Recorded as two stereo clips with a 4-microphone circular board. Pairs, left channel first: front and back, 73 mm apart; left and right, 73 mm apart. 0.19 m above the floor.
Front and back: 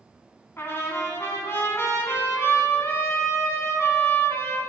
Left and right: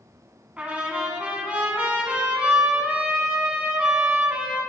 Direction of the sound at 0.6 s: 30° right.